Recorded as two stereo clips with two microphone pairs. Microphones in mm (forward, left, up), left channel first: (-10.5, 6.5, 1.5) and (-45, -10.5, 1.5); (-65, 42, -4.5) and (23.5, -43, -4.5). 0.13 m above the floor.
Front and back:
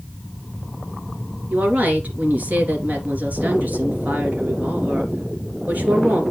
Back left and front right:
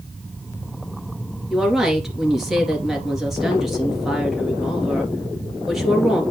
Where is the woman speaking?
130° right, 2.5 m.